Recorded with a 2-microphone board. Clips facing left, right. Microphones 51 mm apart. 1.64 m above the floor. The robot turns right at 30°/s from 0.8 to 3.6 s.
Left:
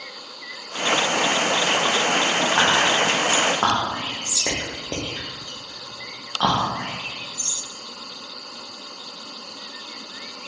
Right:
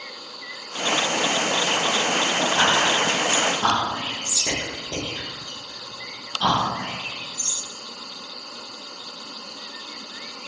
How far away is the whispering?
About 0.8 m.